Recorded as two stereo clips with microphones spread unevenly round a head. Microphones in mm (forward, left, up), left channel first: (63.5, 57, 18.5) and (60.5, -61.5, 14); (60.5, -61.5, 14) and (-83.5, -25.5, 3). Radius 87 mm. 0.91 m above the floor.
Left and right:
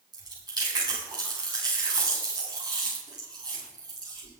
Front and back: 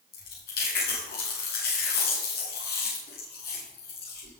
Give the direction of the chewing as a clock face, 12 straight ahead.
1 o'clock.